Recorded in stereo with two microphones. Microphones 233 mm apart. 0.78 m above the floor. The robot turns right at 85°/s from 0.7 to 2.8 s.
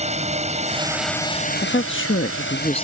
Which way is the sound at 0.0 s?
30° right.